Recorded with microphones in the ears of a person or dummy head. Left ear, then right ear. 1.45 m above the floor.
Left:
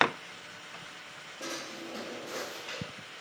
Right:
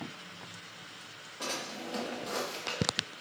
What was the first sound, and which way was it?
A drawer, 55° right (ahead or behind).